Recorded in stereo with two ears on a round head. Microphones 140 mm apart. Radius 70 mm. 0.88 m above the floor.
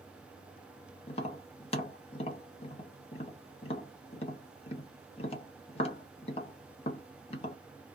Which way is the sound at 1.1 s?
40° left (ahead or behind).